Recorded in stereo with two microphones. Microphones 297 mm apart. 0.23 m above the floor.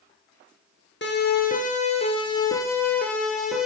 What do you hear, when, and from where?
1.0 s a siren: 40° left (ahead or behind), 4.5 m; by 3.7 s centre (ahead or behind), 6.5 m